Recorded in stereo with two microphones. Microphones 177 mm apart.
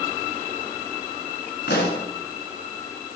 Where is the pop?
70° left (ahead or behind), 2 m.